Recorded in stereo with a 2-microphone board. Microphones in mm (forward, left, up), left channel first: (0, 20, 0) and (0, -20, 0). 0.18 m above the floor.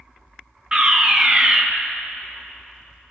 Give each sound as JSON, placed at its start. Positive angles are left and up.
{"t": 0.7, "sound": "a fire alarm", "side_deg": -20, "distance_m": 2.0}